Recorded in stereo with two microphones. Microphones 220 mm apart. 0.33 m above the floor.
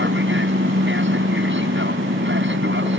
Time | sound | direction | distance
0.0 | an aircraft | 60° right (ahead or behind) | ?